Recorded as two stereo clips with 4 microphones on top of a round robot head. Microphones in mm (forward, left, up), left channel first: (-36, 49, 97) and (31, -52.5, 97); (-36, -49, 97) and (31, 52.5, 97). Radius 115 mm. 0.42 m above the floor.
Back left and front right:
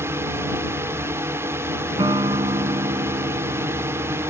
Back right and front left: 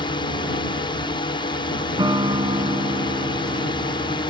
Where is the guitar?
Straight ahead.